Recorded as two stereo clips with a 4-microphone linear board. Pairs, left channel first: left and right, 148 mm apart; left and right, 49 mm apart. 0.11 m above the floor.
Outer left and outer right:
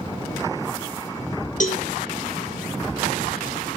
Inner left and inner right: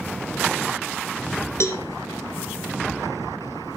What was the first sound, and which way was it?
A cowbell, 60° left (ahead or behind).